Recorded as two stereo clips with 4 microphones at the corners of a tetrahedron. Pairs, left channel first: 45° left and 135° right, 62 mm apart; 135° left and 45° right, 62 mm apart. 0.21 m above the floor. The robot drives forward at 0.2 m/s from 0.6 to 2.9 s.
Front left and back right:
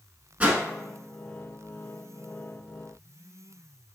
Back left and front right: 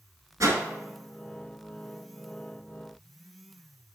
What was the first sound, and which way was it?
A whoosh, 70° right.